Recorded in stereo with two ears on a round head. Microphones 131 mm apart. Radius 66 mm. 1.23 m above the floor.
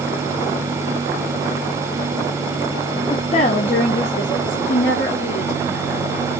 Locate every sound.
3.1 s a woman speaking: 25° left (ahead or behind), 0.5 m; by 6.1 s 80° left, 2.5 m